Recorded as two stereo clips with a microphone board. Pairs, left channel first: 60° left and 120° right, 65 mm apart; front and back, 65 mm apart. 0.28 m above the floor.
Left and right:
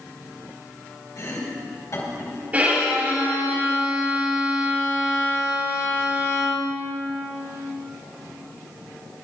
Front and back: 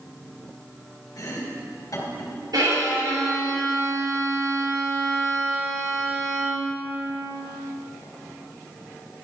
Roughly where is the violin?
Behind.